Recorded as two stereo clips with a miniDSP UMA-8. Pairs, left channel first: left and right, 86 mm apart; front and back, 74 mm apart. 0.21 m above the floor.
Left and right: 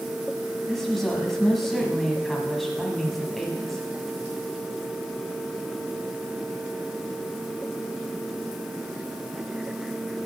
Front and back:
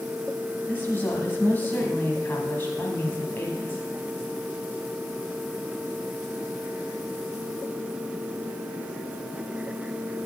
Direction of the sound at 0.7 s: 5° left.